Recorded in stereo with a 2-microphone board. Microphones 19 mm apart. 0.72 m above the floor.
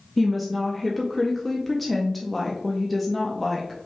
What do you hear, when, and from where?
0.2 s a woman speaking: 5° left (ahead or behind), 0.5 m